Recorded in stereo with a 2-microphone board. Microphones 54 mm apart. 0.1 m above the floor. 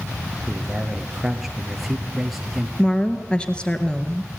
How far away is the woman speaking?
About 1.7 m.